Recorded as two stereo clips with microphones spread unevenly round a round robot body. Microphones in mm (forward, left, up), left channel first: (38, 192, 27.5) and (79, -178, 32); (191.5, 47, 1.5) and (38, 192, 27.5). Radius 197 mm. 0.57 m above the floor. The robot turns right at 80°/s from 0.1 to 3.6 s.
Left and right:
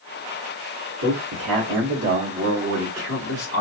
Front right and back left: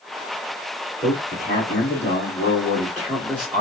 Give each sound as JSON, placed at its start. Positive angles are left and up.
{"t": 1.0, "sound": "a man speaking", "azimuth_deg": -120, "distance_m": 2.0}